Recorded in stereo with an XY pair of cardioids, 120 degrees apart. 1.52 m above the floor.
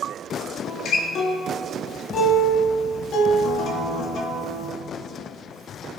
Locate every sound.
0.6 s a guitar: 60° left, 1.9 m